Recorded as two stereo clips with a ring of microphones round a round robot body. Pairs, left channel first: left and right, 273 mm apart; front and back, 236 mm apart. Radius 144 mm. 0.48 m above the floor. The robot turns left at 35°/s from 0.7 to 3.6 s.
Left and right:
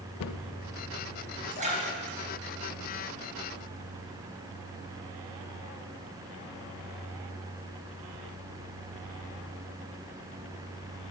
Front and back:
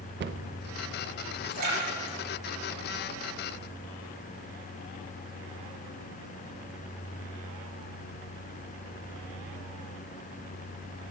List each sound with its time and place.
0.2 s a cupboard door: 130° left, 0.5 m
1.5 s a splash: 150° right, 3.5 m; by 3.5 s 140° left, 3.5 m